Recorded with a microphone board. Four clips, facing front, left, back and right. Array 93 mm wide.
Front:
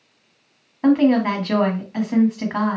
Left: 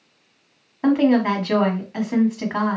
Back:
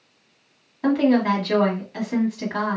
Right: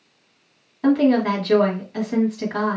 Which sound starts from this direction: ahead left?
A woman speaking, at 0.8 s.